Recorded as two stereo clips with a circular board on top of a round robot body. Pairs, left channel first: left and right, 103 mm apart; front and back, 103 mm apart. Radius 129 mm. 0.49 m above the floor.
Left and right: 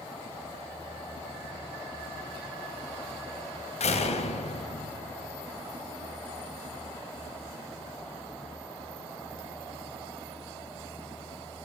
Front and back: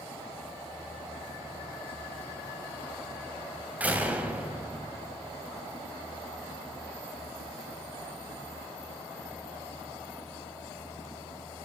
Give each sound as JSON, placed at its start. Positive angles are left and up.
{"t": 3.8, "sound": "a door slam", "azimuth_deg": 105, "distance_m": 2.5}